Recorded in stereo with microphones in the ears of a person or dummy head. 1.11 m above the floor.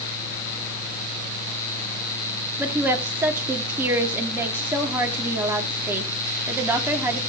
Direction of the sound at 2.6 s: 15° right (ahead or behind).